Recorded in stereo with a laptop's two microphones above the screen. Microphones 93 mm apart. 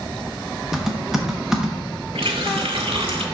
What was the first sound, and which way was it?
Typing on a keyboard, 5° right (ahead or behind).